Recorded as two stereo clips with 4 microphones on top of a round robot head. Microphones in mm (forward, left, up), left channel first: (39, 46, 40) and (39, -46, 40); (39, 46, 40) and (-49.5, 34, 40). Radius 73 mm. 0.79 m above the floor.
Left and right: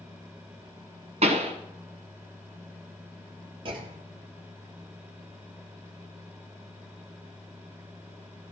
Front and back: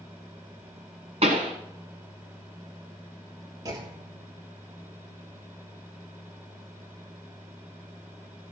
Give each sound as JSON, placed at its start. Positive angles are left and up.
{"t": 1.2, "sound": "a pop", "azimuth_deg": -130, "distance_m": 1.5}
{"t": 3.6, "sound": "a clunk", "azimuth_deg": -120, "distance_m": 1.9}